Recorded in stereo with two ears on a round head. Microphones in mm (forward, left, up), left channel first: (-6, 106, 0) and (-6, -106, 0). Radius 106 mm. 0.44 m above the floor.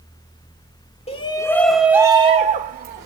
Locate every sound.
1.1 s a shout: 25° left (ahead or behind), 1.3 m; by 3.0 s 45° right (ahead or behind), 1.6 m